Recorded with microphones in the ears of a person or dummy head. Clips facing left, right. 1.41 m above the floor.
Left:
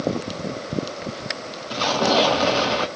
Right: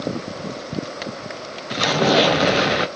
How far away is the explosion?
About 0.5 m.